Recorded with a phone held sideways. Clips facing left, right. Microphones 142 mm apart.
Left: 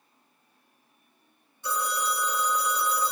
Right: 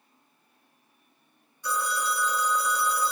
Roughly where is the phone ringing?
Left.